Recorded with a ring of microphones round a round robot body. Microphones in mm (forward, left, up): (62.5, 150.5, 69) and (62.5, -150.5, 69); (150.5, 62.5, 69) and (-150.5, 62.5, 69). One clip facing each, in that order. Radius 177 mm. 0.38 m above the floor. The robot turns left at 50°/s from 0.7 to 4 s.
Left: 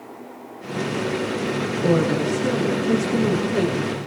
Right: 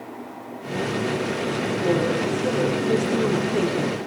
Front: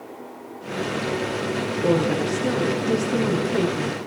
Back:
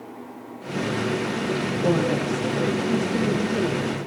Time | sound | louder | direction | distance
1.8 | a woman speaking | left 3 dB, front 2 dB | 65° left | 5.5 m